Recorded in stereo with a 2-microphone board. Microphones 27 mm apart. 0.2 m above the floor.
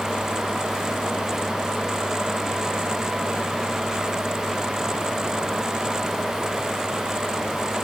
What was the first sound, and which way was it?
Only background noise.